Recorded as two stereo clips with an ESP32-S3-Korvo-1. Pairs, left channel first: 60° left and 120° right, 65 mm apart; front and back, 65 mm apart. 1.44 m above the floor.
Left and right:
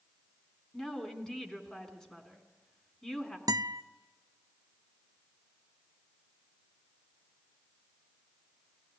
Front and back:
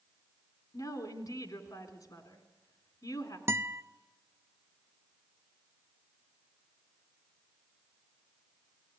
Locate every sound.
0.7 s a woman speaking: 15° right, 3.5 m
3.5 s a guitar: 135° right, 0.5 m